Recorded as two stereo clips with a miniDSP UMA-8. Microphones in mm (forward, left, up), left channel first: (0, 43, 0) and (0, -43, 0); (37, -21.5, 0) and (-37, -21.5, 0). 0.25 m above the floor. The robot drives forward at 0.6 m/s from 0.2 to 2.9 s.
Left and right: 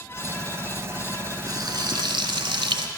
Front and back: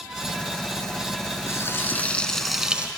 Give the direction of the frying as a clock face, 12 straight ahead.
2 o'clock.